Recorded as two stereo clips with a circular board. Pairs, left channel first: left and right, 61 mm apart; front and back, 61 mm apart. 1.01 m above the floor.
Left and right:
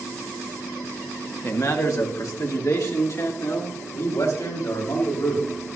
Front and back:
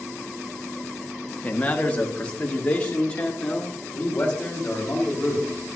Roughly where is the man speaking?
Ahead left.